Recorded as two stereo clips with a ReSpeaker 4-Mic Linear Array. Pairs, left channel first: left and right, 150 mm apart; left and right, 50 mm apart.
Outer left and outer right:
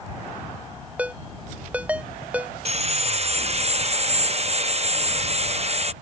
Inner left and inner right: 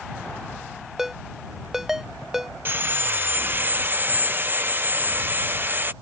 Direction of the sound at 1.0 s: 10° right (ahead or behind).